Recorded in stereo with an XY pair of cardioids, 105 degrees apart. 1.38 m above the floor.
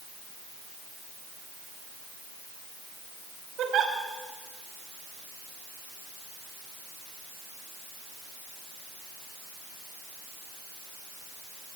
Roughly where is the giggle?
Right.